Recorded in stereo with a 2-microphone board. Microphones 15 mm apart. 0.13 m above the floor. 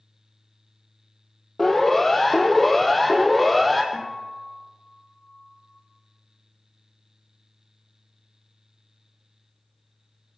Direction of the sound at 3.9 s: 35° left (ahead or behind).